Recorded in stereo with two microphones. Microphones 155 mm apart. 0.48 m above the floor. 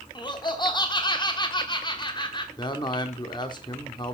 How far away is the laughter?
About 1.3 m.